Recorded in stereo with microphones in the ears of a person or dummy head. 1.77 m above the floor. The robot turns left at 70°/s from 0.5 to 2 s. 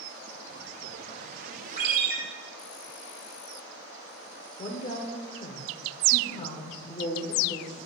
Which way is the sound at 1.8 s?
45° right (ahead or behind).